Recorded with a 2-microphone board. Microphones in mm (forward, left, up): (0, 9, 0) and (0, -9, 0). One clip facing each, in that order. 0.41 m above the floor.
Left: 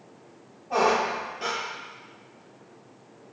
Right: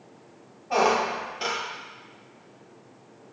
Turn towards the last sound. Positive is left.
turn(degrees=-50)  # may be behind; listen again after turning